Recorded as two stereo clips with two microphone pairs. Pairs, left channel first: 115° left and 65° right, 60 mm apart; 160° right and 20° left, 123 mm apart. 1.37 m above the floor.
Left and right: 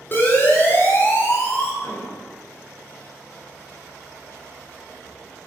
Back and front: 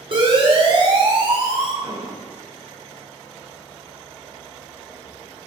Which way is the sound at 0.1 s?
65° left.